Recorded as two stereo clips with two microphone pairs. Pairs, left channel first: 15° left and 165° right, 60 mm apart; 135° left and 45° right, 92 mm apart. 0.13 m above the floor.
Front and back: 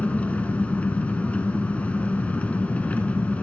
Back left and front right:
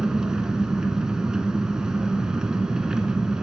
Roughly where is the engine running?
Ahead left.